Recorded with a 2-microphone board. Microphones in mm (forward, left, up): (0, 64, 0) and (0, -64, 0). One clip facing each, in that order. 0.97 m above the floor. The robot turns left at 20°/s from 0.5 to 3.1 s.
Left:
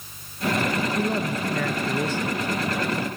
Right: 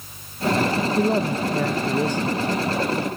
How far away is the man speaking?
About 0.6 m.